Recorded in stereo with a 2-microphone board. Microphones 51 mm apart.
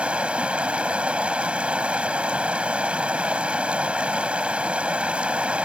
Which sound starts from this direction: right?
Running water, at 0.0 s.